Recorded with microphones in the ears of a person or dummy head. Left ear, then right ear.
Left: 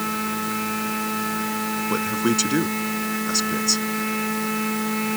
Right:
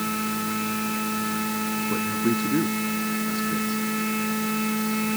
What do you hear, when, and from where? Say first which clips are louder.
0.0 s a machine running: left 2 dB; 20° left (ahead or behind)
1.9 s a man speaking: left 4 dB; 80° left